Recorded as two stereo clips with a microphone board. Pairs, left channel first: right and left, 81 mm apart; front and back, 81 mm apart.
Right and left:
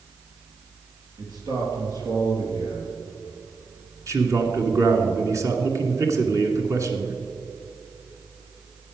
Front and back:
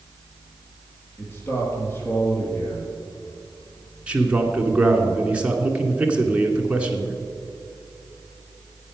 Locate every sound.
1.2 s a man speaking: 60° left, 4 m
4.1 s a man speaking: 110° left, 1.5 m